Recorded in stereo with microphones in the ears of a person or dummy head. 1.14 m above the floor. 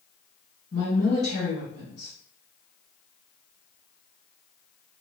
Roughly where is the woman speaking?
Left.